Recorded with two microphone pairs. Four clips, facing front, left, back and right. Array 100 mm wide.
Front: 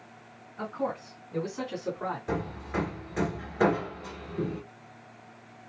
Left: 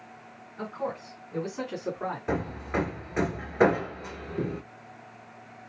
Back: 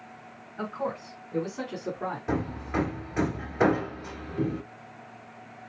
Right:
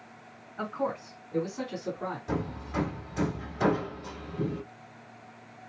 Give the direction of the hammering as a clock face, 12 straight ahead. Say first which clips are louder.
Left 4 dB, back 3 dB; 9 o'clock.